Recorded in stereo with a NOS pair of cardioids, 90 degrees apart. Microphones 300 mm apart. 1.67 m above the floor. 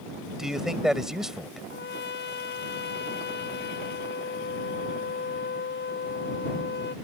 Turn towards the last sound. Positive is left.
turn(degrees=35)